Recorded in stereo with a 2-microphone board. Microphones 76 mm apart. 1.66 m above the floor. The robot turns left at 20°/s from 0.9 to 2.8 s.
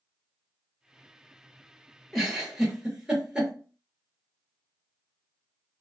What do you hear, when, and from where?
2.1 s a giggle: centre (ahead or behind), 1.0 m; by 3.5 s 10° right (ahead or behind), 1.0 m